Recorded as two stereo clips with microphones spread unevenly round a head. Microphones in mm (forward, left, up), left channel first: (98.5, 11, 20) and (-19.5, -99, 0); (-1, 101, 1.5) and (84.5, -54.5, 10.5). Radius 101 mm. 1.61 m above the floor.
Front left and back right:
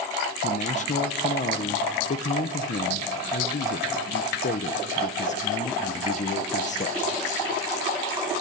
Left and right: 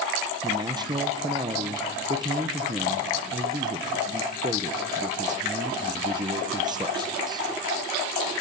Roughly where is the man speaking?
Ahead.